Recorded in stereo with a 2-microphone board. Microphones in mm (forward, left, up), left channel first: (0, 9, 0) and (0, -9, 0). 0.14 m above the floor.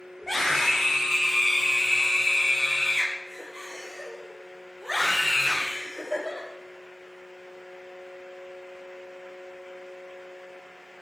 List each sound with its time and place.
0.2 s a scream: 15° left (ahead or behind), 8 m; by 6.5 s 5° right (ahead or behind), 13.5 m